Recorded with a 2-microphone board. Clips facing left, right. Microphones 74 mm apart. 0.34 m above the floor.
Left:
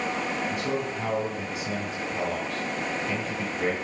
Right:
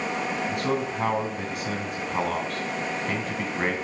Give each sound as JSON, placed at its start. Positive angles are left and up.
{"t": 0.5, "sound": "a man speaking", "side_deg": -55, "distance_m": 2.0}